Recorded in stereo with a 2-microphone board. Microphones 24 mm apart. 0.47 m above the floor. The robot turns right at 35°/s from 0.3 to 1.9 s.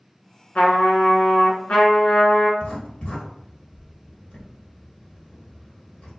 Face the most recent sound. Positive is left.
turn(degrees=55)  # may be behind; listen again after turning